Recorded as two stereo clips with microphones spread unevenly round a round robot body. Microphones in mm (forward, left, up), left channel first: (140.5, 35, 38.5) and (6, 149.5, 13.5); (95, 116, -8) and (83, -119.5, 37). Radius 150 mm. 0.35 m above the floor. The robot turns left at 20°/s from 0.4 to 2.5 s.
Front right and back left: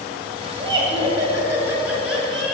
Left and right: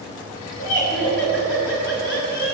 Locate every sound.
0.6 s laughter: 90° left, 2.5 m; by 2.5 s 50° left, 2.5 m